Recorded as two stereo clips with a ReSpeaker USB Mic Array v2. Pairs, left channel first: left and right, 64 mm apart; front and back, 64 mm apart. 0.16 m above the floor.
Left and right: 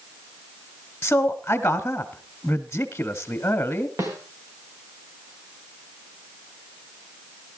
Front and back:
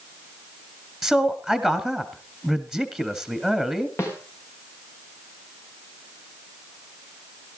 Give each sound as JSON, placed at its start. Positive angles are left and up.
{"t": 1.0, "sound": "a man speaking", "azimuth_deg": 75, "distance_m": 1.1}
{"t": 4.0, "sound": "a snare drum", "azimuth_deg": -50, "distance_m": 5.0}